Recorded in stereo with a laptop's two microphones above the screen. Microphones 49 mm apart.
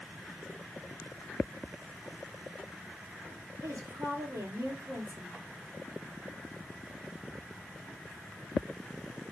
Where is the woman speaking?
75° right (ahead or behind), 2.5 m.